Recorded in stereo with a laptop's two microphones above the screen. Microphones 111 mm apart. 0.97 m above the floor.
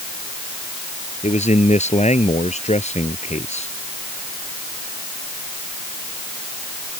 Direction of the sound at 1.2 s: 85° left.